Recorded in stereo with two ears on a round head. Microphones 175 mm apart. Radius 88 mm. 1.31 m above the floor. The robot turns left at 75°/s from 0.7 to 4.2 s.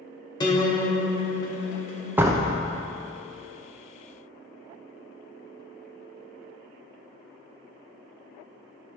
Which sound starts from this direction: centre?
A door slam, at 2.2 s.